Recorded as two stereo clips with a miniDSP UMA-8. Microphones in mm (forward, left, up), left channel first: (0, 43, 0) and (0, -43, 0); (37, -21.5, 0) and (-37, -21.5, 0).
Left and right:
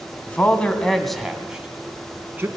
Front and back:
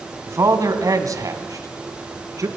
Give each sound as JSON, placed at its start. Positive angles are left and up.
{"t": 0.3, "sound": "a man speaking", "azimuth_deg": 155, "distance_m": 2.0}